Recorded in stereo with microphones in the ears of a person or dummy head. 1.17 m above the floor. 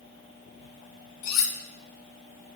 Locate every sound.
1.2 s cutlery clinking: 65° left (ahead or behind), 0.7 m